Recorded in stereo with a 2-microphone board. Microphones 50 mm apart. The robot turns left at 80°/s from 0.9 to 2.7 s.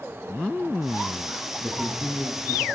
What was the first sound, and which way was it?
A man speaking, 10° left.